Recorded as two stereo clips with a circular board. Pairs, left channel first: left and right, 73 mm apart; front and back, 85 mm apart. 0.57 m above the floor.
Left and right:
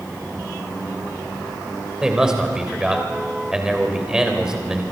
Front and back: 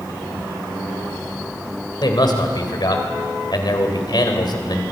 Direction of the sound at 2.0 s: 10° right.